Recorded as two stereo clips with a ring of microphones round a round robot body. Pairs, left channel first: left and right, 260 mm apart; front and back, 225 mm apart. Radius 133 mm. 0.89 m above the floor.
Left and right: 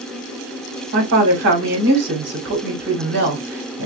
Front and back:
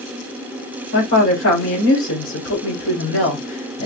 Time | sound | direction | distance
0.9 | a woman speaking | 40° right | 3.5 m